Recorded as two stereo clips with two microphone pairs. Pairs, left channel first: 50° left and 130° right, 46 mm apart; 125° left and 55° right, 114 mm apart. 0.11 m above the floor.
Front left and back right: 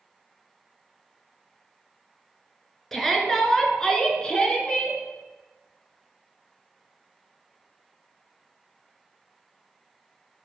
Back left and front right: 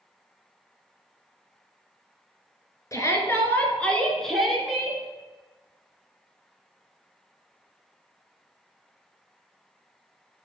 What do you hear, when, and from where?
2.9 s a shout: 130° left, 1.9 m; by 5.0 s 10° left, 1.9 m